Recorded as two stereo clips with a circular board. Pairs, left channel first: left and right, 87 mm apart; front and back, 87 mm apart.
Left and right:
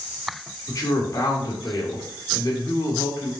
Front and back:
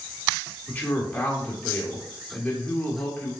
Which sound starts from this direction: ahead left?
A woman speaking, at 0.7 s.